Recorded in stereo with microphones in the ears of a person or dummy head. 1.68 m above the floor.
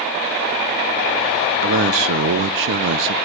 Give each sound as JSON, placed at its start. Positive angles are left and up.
{"t": 1.6, "sound": "a man speaking", "side_deg": -60, "distance_m": 0.8}